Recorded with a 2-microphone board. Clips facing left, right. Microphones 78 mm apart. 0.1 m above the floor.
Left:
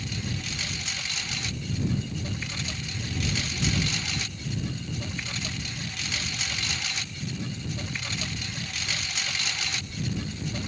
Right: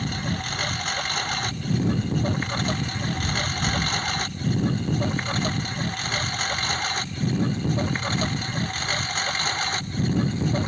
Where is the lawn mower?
50° right (ahead or behind); by 10.7 s 45° right (ahead or behind).